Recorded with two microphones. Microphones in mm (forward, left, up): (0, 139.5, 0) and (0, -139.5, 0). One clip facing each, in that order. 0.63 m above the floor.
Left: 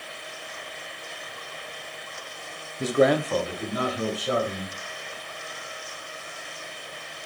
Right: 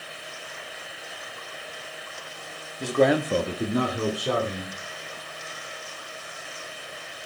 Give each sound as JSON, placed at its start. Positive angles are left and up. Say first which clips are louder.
{"t": 2.8, "sound": "a man speaking", "louder": "even", "side_deg": 25, "distance_m": 0.6}